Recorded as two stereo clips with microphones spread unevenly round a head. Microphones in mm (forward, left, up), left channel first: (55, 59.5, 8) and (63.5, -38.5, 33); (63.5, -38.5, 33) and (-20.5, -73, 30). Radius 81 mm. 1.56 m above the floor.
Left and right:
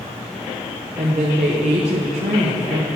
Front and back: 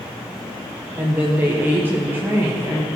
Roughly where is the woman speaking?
Right.